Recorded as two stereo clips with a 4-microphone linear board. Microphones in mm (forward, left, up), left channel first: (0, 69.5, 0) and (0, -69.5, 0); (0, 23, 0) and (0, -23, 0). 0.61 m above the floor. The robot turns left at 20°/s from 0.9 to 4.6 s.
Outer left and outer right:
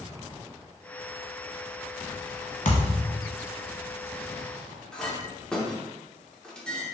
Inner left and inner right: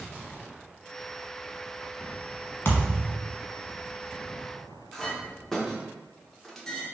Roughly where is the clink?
Centre.